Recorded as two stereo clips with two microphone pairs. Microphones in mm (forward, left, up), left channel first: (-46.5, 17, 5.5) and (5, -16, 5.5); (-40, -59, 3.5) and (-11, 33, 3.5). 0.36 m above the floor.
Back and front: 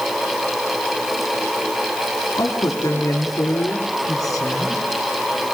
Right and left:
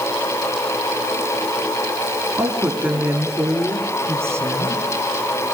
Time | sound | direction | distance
2.4 | a woman speaking | 150° left | 5 m